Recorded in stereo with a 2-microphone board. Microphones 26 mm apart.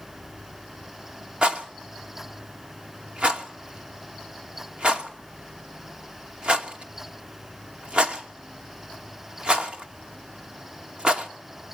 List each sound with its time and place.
1.4 s a rattle: 40° right (ahead or behind), 2.5 m